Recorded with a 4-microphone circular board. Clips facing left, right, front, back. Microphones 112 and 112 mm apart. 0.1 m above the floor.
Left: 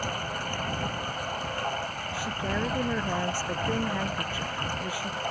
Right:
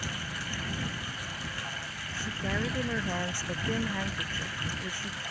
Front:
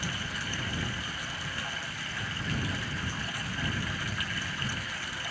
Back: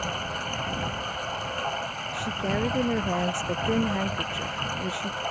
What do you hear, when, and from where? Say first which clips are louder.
0.0 s running water: left 7 dB, back 6 dB; 135° left
2.1 s a woman speaking: left 2 dB, back 9 dB; 170° left